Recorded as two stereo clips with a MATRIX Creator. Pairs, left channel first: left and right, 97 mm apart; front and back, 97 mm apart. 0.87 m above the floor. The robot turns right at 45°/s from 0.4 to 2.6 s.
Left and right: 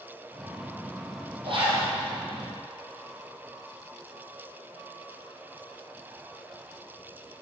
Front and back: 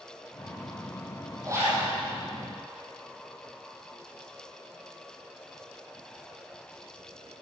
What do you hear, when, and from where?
1.4 s a zipper: 125° right, 4.5 m; by 1.9 s 105° right, 4.5 m